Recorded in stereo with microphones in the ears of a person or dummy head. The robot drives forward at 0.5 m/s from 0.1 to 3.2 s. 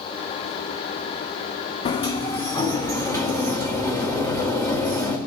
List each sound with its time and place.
1.9 s a sliding door: 35° left (ahead or behind), 0.8 m; by 5.2 s 20° left (ahead or behind), 1.4 m